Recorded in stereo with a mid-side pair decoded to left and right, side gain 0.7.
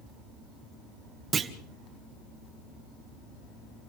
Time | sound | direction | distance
1.3 | a clunk | 25° right | 1.9 m